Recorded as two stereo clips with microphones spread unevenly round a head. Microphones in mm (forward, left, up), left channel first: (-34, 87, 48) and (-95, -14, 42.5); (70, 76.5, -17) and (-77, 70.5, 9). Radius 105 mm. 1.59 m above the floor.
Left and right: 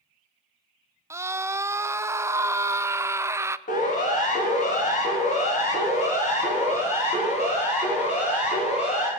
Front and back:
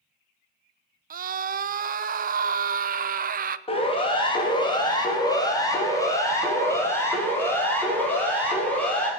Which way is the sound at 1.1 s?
170° left.